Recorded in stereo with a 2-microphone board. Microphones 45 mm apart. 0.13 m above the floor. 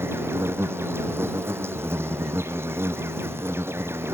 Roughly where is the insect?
Right.